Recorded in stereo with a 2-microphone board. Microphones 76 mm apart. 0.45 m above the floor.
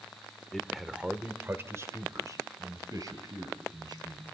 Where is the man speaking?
5° left (ahead or behind), 1.5 m; by 4.2 s 60° right (ahead or behind), 4.5 m.